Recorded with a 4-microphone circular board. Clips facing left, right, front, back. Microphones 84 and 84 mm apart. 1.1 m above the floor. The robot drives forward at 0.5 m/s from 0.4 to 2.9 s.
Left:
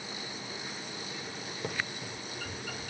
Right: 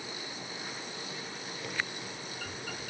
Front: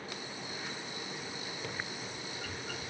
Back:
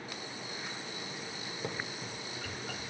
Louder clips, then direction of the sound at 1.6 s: Left 1 dB, back 4 dB; 130° left.